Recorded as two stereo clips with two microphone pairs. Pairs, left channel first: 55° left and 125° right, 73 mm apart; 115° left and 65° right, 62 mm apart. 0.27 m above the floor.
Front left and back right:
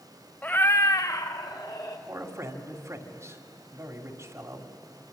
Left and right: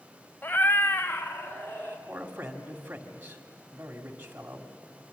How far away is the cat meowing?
About 0.7 m.